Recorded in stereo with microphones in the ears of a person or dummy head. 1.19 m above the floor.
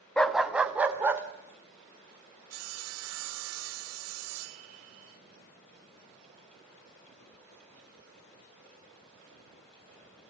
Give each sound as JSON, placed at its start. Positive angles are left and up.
{"t": 0.2, "sound": "a dog barking", "side_deg": 0, "distance_m": 0.9}
{"t": 2.5, "sound": "sawing", "side_deg": -85, "distance_m": 0.8}